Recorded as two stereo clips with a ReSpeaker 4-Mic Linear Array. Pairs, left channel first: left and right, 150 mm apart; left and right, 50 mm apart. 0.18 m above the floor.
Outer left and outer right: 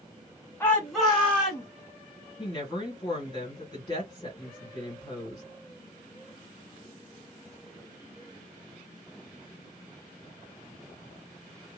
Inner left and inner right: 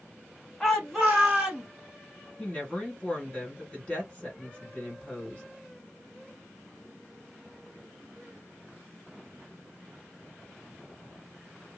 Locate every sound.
0.6 s a shout: 15° left (ahead or behind), 1.1 m; by 1.7 s 15° right (ahead or behind), 1.8 m
2.4 s a woman speaking: 30° left (ahead or behind), 2 m